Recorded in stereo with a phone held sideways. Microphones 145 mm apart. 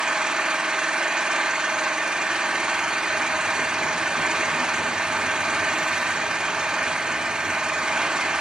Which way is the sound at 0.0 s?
5° right (ahead or behind).